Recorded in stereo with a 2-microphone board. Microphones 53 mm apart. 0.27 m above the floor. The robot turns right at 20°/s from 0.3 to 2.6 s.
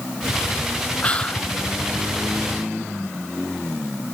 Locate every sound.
1.0 s whispering: 25° left (ahead or behind); by 1.5 s 20° left (ahead or behind)